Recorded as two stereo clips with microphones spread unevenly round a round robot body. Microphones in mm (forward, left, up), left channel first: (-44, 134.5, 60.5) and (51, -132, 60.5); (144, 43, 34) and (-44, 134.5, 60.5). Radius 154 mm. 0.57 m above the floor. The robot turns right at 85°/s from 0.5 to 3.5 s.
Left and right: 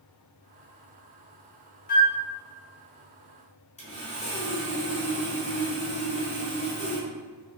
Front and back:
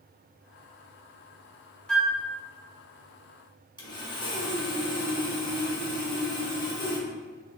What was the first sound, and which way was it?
A flute, 55° left.